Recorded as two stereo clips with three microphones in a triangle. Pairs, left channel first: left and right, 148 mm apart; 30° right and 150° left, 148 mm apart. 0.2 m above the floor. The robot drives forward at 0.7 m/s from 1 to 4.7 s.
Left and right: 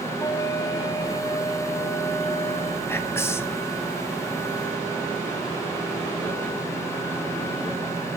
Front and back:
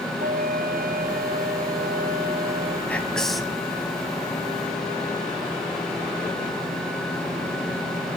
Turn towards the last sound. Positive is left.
turn(degrees=145)